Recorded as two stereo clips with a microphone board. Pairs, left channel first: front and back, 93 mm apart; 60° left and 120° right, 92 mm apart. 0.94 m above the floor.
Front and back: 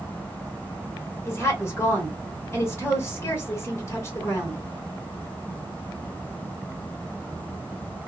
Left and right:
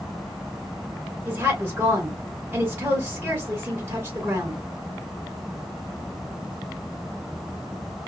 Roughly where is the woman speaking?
Ahead right.